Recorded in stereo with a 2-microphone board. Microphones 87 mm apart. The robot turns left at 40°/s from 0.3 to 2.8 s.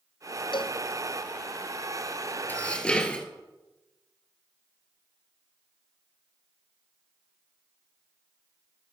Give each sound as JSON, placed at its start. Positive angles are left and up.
{"t": 0.5, "sound": "a cowbell", "side_deg": 75, "distance_m": 0.6}
{"t": 2.5, "sound": "dishes clattering", "side_deg": 20, "distance_m": 1.5}